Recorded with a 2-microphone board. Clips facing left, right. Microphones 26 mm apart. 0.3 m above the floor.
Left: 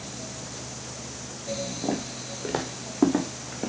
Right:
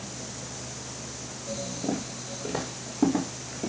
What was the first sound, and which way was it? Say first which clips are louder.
Footsteps: even; 45° left (ahead or behind).